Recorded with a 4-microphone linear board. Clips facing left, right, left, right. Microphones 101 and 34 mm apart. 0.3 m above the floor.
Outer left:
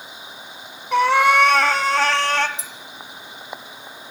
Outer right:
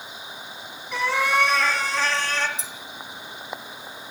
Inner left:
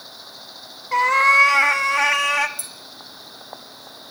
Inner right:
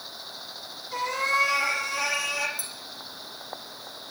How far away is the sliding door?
I don't hear a sliding door.